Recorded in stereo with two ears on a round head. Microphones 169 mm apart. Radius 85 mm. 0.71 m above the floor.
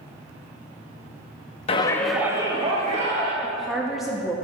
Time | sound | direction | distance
1.7 | a shout | 30° left (ahead or behind) | 0.9 m
3.4 | a woman speaking | centre (ahead or behind) | 0.6 m